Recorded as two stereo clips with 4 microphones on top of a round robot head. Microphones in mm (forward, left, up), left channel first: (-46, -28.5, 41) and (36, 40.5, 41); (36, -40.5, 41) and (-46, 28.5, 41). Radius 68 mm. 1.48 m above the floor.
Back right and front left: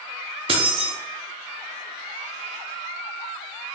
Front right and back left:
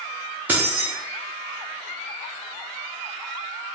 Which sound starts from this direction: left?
Keys jangling, at 0.5 s.